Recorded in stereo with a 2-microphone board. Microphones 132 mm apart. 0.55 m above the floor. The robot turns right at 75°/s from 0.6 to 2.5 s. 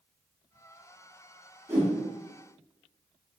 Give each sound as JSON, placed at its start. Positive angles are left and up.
{"t": 1.7, "sound": "a whoosh", "side_deg": -20, "distance_m": 0.9}